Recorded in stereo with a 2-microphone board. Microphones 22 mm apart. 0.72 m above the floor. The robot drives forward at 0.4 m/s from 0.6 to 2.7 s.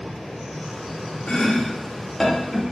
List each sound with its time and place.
1.3 s chopping: 50° left (ahead or behind), 0.7 m; by 2.6 s 30° left (ahead or behind), 1.0 m